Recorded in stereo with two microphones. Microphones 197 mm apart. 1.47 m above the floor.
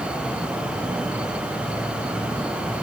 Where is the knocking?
No knocking in this recording.